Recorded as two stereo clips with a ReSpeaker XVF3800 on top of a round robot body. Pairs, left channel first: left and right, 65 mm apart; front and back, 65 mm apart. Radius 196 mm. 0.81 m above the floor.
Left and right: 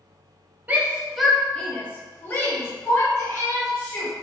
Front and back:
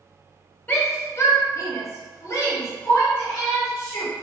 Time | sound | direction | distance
0.7 | a shout | 40° right | 0.8 m